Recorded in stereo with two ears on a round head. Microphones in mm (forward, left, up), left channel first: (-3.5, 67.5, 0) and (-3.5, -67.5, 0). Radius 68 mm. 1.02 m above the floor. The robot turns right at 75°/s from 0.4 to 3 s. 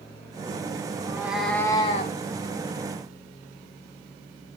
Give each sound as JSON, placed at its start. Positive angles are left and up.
{"t": 1.0, "sound": "a cat meowing", "azimuth_deg": -30, "distance_m": 1.5}